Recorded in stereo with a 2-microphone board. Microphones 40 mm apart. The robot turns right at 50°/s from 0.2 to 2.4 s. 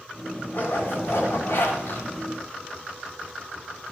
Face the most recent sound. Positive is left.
turn(degrees=145)